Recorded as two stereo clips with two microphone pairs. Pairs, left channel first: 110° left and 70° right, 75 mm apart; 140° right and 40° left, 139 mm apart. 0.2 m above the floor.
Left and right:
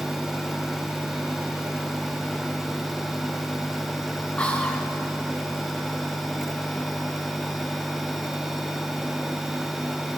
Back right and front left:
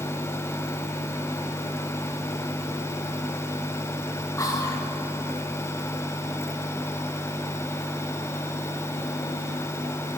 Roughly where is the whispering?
Behind.